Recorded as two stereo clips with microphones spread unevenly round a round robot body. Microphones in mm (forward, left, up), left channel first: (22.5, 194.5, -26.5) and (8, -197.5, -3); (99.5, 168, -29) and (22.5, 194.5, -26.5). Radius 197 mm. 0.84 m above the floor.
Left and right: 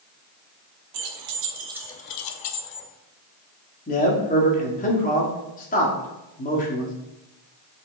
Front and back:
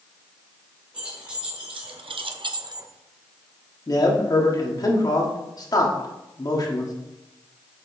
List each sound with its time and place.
0.9 s keys jangling: 130° right, 1.0 m; by 2.9 s 110° left, 1.0 m
3.9 s a man speaking: 20° left, 1.6 m